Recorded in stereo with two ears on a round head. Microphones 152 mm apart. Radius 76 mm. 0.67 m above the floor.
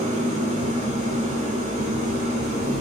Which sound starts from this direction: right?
An engine running, at 0.0 s.